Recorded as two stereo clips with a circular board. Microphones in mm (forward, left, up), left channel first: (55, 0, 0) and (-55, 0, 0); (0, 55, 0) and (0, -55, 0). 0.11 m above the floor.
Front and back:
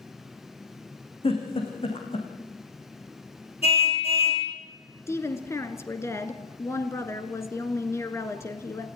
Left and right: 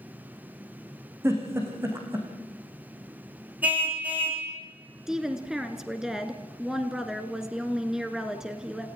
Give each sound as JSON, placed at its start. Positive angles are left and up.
{"t": 1.2, "sound": "a giggle", "azimuth_deg": -25, "distance_m": 4.5}
{"t": 3.6, "sound": "a car horn", "azimuth_deg": -15, "distance_m": 3.5}
{"t": 5.1, "sound": "a woman speaking", "azimuth_deg": -10, "distance_m": 1.5}